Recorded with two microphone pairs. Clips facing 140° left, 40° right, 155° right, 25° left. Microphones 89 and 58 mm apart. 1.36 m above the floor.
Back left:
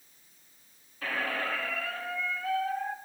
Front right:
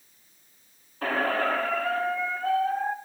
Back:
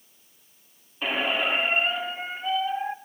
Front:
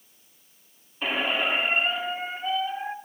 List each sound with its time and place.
1.0 s a squeak: 65° right, 1.0 m